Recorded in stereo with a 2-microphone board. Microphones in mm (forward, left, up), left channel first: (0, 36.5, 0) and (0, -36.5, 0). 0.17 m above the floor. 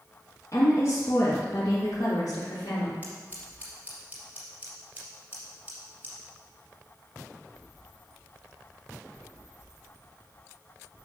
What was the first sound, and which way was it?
A woman speaking, 50° left (ahead or behind).